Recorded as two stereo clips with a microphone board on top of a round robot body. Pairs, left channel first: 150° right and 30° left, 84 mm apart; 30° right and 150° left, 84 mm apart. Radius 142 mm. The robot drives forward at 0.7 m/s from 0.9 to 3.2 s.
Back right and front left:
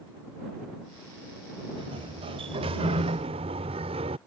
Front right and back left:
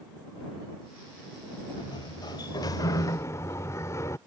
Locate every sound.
1.8 s a sliding door: 10° left; by 4.2 s 30° left